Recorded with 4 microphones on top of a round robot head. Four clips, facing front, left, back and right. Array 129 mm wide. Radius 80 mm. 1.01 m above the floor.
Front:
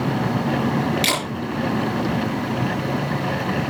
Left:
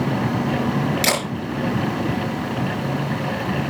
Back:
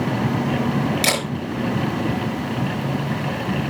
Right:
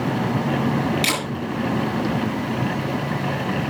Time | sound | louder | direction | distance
1.0 | a camera shutter | left 3 dB, back 1 dB | 125° left | 5 m